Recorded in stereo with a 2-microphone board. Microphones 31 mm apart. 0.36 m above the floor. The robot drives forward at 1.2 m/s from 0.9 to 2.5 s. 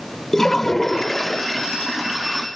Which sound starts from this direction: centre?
A toilet flushing, at 0.3 s.